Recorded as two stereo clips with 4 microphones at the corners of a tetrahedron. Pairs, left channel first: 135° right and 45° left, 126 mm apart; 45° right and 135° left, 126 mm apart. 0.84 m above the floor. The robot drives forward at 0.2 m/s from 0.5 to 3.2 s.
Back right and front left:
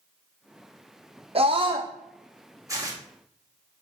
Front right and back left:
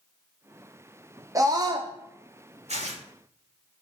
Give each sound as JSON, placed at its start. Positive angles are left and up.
{"t": 1.4, "sound": "a scream", "azimuth_deg": 80, "distance_m": 0.6}
{"t": 2.7, "sound": "tearing paper", "azimuth_deg": 110, "distance_m": 2.0}